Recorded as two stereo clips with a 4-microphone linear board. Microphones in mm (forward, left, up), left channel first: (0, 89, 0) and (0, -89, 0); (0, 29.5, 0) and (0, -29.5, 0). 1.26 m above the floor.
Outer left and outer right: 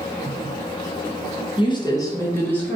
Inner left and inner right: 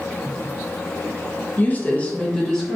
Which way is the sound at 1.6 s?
30° left (ahead or behind).